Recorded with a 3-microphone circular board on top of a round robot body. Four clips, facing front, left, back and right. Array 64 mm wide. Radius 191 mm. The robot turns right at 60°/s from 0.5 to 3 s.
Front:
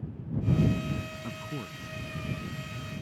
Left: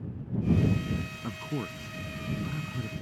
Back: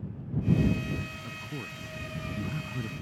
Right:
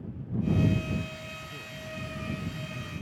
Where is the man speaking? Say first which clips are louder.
Left 7 dB, front 1 dB; 65° left; by 2.9 s 165° left.